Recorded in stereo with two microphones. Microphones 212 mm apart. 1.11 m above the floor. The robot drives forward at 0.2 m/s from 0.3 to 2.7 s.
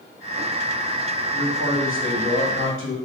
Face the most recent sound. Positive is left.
turn(degrees=75)  # may be behind; listen again after turning